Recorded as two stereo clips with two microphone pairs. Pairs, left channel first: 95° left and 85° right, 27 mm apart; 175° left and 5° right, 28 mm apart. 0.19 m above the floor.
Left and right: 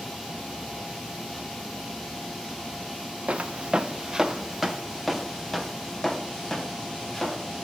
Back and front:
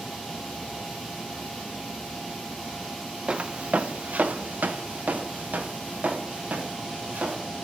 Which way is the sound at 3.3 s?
55° right.